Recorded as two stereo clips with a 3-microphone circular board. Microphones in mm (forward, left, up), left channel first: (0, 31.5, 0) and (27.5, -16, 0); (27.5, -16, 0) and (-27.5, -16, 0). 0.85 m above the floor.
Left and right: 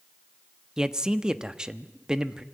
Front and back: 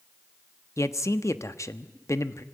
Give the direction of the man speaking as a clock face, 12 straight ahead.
11 o'clock.